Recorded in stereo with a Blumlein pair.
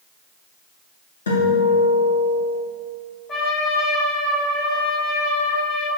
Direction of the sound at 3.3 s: 20° left.